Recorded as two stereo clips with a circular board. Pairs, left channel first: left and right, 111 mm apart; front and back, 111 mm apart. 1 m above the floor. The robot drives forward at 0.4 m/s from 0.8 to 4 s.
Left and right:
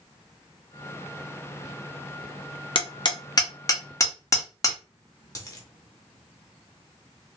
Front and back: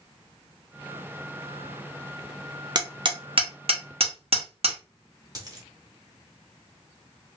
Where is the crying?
No crying in this recording.